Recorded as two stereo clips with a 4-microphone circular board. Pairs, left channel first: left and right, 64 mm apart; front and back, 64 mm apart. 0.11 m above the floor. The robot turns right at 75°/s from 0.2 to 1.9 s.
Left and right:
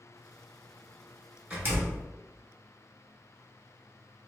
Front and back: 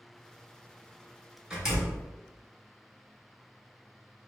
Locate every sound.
1.5 s a door slam: 125° right, 1.1 m; by 2.1 s 95° right, 1.1 m